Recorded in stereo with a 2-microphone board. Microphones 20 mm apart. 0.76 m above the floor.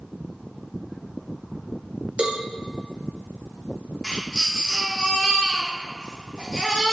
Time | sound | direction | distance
2.2 | a cowbell | 55° right (ahead or behind) | 0.9 m
4.0 | a baby crying | 20° left (ahead or behind) | 1.7 m